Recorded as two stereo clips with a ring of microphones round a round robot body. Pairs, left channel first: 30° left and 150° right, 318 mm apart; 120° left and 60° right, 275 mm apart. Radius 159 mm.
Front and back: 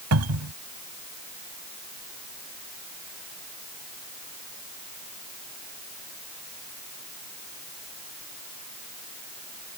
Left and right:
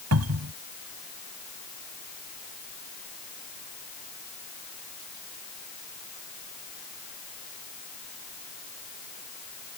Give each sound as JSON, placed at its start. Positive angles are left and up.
{"t": 0.1, "sound": "a cupboard door", "azimuth_deg": -105}